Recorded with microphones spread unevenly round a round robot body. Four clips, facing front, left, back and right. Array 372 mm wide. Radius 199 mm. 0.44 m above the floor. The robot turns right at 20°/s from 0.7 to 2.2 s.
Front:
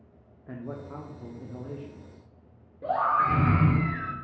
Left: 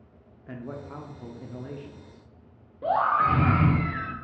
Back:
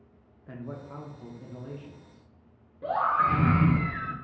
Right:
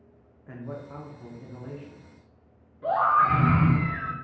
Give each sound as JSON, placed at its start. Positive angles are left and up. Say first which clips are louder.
{"t": 0.5, "sound": "a man speaking", "louder": "left 1 dB, front 2 dB", "azimuth_deg": 50, "distance_m": 0.8}
{"t": 2.8, "sound": "a scream", "louder": "right 1 dB, front 1 dB", "azimuth_deg": 95, "distance_m": 1.3}